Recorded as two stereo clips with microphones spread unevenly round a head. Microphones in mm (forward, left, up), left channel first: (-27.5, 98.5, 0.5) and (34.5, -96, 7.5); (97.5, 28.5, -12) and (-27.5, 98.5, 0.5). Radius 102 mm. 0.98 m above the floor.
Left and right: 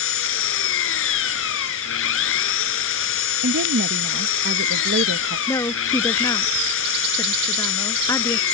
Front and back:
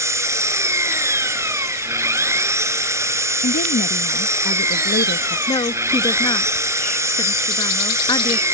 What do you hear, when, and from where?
0.0 s an engine running: 80° left
3.4 s a woman speaking: 35° right
5.5 s a woman speaking: 30° left